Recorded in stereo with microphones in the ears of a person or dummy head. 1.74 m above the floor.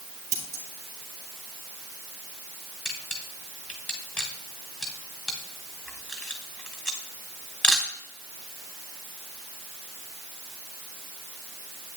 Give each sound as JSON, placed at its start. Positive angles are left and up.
{"t": 0.3, "sound": "scissors", "side_deg": -20, "distance_m": 2.0}
{"t": 2.9, "sound": "a camera shutter", "side_deg": 10, "distance_m": 1.6}